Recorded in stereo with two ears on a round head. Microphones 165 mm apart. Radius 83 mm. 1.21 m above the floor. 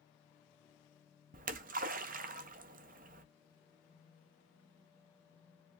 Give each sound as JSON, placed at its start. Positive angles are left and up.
{"t": 1.3, "sound": "a splash", "side_deg": -45, "distance_m": 0.5}